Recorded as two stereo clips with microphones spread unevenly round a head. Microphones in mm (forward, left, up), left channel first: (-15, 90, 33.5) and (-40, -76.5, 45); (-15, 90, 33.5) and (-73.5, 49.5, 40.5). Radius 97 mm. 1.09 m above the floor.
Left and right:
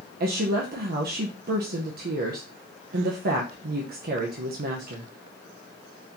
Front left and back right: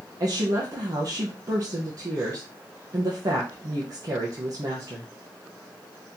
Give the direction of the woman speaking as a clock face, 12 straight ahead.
4 o'clock.